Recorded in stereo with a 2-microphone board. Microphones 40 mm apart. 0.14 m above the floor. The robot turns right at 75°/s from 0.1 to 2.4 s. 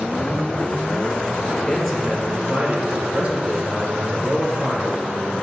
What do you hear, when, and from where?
1.7 s a man speaking: 165° left, 3 m; by 5.0 s 140° right, 3 m